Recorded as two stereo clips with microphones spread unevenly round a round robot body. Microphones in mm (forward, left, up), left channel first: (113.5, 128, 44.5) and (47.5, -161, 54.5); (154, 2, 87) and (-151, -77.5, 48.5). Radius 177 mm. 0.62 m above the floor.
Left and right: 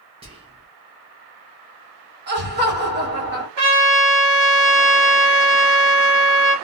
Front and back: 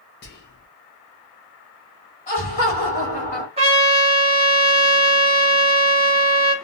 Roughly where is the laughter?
Ahead right.